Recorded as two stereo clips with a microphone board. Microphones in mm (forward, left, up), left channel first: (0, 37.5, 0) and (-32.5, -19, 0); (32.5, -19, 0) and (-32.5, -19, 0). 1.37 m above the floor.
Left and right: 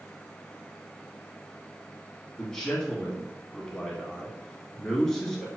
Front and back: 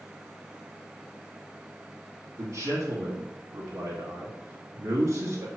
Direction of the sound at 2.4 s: 140° left.